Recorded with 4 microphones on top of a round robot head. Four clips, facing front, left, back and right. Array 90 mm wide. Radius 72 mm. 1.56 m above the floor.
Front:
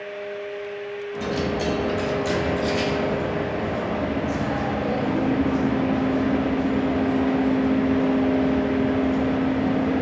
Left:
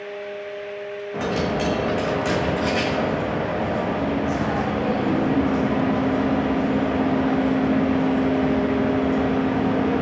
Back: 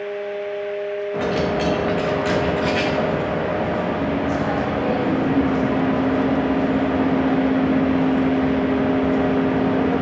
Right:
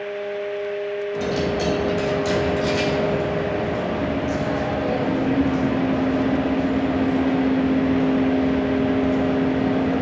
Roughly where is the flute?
I don't hear a flute.